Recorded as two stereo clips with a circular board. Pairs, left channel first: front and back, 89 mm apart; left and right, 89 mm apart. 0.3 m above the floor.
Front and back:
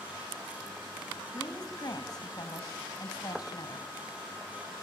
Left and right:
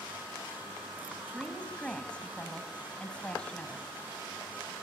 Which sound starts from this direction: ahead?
A woman speaking, at 1.3 s.